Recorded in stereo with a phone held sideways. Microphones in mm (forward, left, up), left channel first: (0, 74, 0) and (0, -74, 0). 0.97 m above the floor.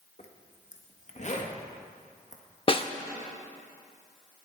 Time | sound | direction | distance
0.2 | a zipper | 50° left (ahead or behind) | 1.5 m
2.7 | a snare drum | 35° left (ahead or behind) | 0.7 m